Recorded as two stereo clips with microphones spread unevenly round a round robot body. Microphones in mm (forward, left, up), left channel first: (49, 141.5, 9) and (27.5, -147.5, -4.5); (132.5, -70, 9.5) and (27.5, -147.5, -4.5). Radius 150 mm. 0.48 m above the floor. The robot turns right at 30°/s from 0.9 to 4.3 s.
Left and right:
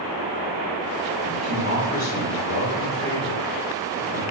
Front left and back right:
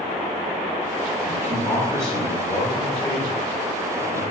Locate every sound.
1.2 s a man speaking: 60° left, 1.3 m; by 4.2 s 150° left, 1.3 m